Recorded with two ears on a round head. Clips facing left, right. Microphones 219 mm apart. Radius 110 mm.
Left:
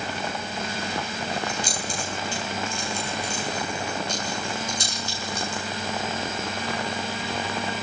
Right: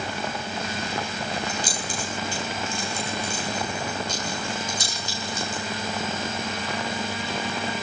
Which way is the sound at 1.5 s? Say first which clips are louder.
Even; 70° right (ahead or behind).